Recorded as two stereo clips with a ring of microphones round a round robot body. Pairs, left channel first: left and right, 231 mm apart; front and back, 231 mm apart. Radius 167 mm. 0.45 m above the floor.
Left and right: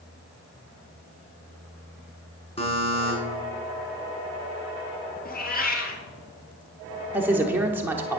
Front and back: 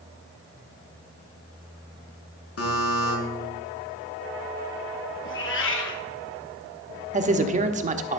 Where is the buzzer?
25° left, 4.5 m.